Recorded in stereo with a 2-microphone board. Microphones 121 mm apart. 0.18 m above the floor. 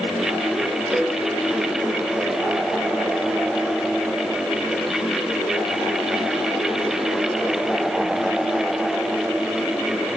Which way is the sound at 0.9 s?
30° right (ahead or behind).